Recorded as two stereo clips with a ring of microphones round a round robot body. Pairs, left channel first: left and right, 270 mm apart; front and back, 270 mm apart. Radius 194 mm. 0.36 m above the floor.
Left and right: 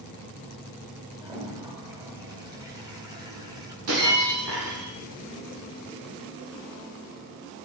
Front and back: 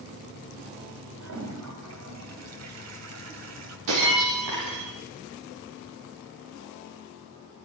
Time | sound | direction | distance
1.2 | a toilet flushing | 165° right | 2.5 m
3.9 | breaking glass | 145° right | 6.5 m